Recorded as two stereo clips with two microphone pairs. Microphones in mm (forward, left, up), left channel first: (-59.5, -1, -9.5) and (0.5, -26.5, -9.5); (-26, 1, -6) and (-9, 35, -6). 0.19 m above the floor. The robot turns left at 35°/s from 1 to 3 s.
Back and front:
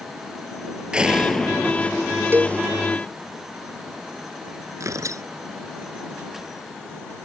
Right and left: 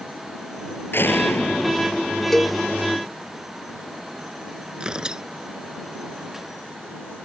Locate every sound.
0.9 s a door slam: 95° right; by 2.2 s 140° right
2.3 s a cowbell: 45° right; by 2.6 s 55° right
4.8 s tearing paper: straight ahead